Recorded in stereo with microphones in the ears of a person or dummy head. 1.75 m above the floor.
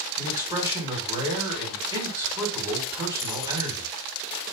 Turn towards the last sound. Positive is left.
turn(degrees=-15)  # may be behind; listen again after turning